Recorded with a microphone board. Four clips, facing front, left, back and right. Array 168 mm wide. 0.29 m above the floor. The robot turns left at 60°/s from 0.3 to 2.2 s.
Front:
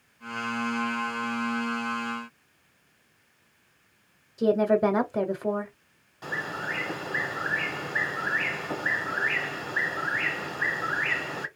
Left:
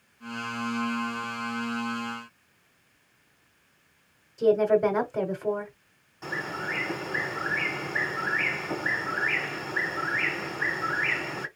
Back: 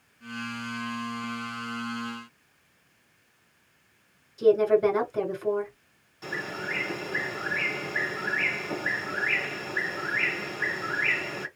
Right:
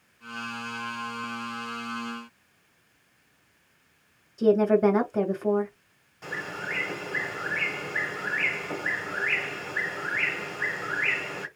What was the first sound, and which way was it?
A woman speaking, 10° right.